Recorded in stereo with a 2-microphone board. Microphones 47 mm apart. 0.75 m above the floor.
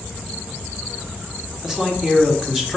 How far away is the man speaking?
About 1.3 m.